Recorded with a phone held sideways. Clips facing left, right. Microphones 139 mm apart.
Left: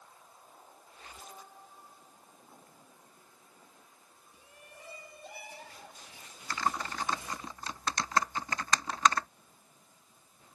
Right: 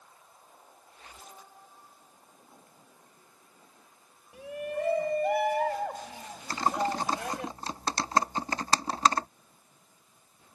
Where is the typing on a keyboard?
35° right (ahead or behind).